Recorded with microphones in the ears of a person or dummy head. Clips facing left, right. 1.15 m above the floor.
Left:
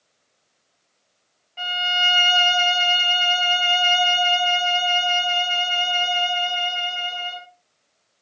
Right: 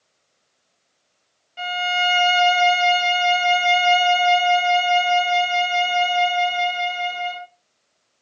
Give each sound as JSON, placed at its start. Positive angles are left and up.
{"t": 1.6, "sound": "a violin", "side_deg": -15, "distance_m": 0.7}